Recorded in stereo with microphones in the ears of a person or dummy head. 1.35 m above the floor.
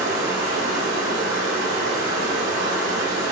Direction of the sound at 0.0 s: 75° right (ahead or behind).